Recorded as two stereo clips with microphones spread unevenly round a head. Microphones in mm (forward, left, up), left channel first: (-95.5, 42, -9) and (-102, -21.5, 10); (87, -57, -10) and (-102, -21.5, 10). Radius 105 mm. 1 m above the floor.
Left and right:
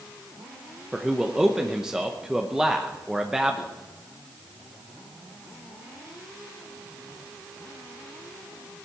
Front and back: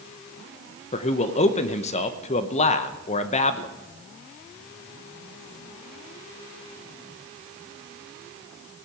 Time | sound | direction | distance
0.9 | a man speaking | 5° left | 0.8 m